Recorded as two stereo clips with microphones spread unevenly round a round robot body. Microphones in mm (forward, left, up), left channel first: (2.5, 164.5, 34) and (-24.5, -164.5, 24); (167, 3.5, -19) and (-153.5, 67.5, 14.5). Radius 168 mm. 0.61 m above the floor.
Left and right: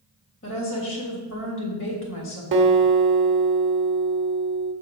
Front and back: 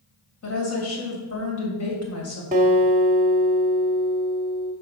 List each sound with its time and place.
0.4 s a woman speaking: 30° left, 3 m
2.5 s a guitar: 125° right, 0.8 m